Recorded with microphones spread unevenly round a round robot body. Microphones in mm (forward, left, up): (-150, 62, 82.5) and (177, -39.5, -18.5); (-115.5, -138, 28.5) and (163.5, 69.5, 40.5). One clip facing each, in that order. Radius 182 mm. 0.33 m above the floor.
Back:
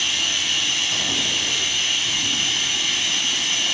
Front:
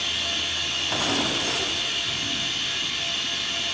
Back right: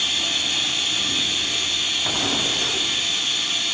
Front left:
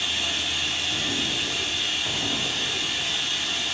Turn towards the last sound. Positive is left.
turn(degrees=155)